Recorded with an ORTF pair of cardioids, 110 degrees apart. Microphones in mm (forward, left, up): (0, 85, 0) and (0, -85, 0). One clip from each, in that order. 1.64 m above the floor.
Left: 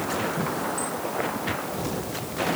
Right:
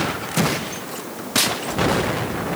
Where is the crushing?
I don't hear crushing.